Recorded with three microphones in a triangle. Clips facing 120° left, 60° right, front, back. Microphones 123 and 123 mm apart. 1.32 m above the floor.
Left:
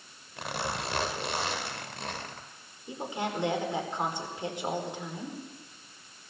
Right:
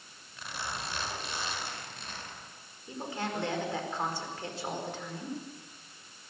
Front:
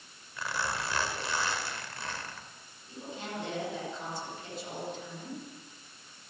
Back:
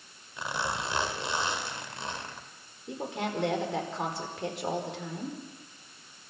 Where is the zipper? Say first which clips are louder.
Left 6 dB, back 2 dB; 110° left, 2.0 m.